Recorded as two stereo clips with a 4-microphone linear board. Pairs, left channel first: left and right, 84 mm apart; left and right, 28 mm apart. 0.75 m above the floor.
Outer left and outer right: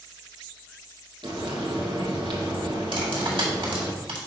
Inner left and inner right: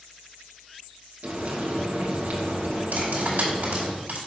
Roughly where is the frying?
Right.